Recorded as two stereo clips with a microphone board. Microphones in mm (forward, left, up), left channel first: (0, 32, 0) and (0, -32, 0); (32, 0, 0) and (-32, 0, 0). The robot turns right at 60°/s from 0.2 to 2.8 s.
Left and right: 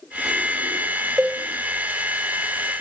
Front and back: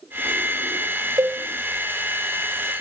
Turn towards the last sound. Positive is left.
turn(degrees=-75)